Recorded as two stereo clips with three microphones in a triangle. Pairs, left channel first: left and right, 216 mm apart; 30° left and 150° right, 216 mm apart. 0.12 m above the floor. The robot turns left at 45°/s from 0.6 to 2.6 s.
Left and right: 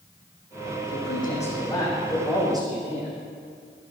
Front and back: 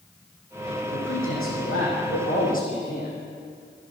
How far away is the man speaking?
About 6.5 m.